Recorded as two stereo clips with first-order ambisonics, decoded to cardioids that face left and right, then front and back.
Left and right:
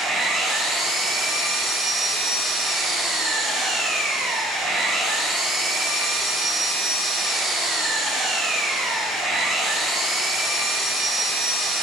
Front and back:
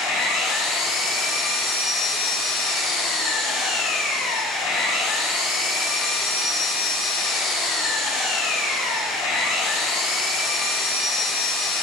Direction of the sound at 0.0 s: 5° right.